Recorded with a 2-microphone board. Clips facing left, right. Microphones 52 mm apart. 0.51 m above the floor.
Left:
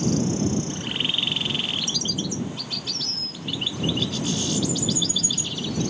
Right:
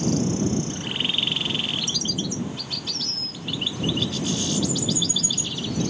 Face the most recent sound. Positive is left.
No sound to turn to.